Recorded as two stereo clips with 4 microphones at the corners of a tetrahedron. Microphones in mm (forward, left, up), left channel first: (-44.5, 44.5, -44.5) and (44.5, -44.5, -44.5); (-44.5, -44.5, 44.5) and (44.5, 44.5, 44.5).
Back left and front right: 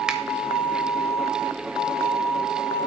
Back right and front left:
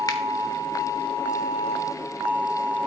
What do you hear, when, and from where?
0.1 s a finger snap: 120° right, 1.1 m